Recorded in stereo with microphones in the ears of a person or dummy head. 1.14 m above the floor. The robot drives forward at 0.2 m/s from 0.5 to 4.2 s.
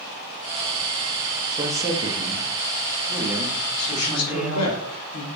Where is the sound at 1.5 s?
20° right (ahead or behind), 0.6 m; by 4.7 s 10° right (ahead or behind), 1.0 m.